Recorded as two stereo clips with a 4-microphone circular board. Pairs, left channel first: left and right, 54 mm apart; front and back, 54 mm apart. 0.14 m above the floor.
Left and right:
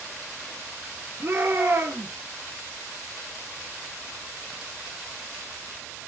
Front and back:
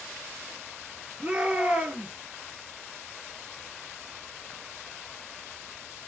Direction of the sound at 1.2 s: 125° right.